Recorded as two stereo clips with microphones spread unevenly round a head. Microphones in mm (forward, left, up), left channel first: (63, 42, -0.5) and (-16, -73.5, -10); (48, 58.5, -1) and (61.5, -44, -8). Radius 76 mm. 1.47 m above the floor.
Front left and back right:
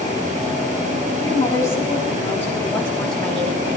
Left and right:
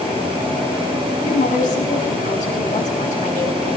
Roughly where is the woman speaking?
Behind left.